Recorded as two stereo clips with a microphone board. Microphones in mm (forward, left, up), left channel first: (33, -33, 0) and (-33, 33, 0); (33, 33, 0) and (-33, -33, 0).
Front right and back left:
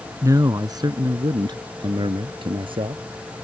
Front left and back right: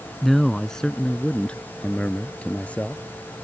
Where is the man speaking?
130° left; by 3.0 s 120° left.